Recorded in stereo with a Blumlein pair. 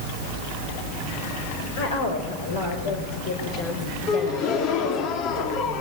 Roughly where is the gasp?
Ahead left.